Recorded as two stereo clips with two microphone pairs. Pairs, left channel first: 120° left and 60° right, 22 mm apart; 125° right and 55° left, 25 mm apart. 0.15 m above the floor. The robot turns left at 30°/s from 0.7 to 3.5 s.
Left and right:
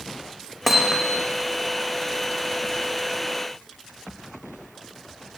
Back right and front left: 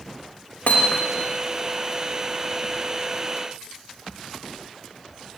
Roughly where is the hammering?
Behind right.